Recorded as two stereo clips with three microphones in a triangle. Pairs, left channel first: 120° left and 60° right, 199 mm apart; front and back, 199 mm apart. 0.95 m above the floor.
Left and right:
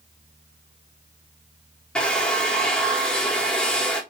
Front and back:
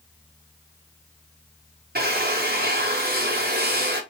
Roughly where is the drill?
Behind right.